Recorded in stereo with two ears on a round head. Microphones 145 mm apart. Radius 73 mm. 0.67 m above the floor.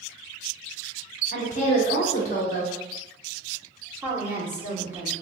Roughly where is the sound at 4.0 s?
Centre.